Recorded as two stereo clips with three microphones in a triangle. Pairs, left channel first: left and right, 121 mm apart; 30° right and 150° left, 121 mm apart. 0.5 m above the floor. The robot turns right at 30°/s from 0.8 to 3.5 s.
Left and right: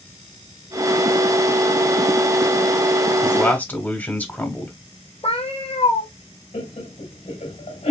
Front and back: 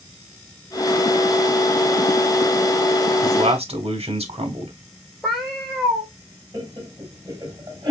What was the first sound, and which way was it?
A man speaking, 150° left.